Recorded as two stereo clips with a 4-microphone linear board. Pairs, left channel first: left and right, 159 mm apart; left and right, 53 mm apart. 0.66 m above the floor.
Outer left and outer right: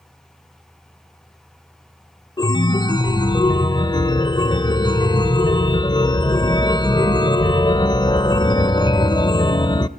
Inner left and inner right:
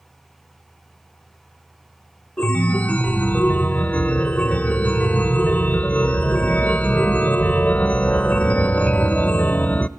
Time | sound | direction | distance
2.4 | a chime | 25° left (ahead or behind) | 0.6 m